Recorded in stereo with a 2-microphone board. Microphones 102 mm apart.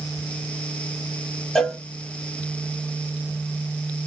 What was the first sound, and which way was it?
A cowbell, 5° left (ahead or behind).